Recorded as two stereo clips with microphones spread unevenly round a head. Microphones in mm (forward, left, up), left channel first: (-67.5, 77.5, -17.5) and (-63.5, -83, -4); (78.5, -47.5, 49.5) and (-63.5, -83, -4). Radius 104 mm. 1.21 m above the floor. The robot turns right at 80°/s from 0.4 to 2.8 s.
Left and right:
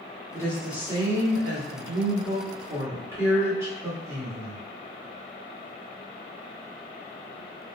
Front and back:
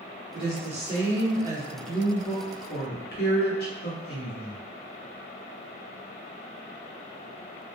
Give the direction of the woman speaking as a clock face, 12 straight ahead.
7 o'clock.